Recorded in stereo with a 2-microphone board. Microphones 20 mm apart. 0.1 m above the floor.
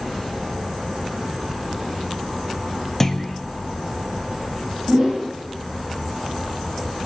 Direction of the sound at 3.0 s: 15° left (ahead or behind).